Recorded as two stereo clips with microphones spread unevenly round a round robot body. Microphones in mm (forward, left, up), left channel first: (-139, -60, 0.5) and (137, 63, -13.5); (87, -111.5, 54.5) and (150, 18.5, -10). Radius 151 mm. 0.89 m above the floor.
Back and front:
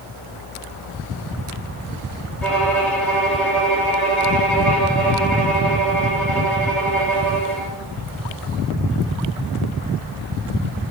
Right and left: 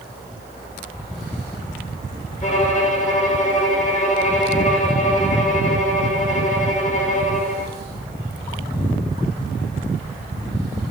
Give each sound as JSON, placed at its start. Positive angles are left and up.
{"t": 2.4, "sound": "a violin", "azimuth_deg": -70, "distance_m": 2.0}